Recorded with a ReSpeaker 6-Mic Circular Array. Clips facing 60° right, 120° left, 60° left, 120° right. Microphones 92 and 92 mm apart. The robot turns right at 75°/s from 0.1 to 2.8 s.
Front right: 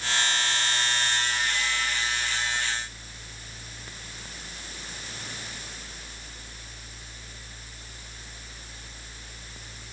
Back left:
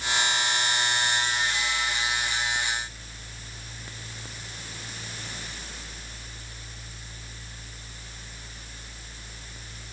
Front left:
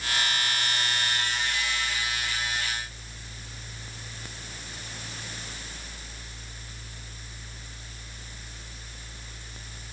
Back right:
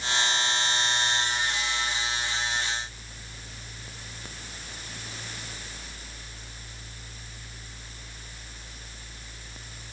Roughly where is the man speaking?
I don't hear a man speaking.